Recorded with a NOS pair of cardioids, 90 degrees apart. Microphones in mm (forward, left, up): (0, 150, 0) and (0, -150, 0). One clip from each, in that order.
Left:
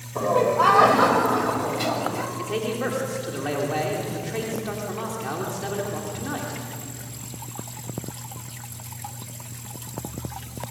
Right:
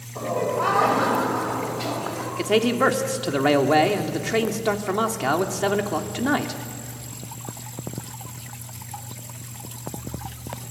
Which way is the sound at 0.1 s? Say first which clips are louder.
Left 5 dB; 40° left.